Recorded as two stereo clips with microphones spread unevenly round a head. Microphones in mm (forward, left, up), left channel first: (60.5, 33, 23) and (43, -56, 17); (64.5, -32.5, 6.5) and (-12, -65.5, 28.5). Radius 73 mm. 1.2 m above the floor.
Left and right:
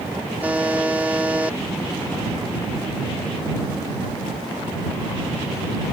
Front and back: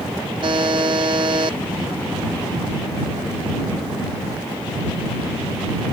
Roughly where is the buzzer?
Behind.